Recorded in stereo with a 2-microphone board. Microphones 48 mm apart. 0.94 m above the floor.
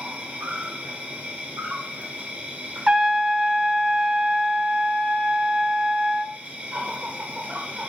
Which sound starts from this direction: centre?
A trumpet, at 2.9 s.